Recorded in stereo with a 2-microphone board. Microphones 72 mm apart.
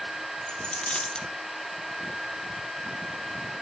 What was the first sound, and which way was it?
A dropped coin, 10° left (ahead or behind).